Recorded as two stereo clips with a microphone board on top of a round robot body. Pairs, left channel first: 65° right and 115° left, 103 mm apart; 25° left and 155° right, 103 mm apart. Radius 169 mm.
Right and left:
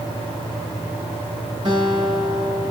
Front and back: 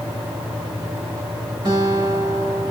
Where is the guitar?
155° left, 6 m.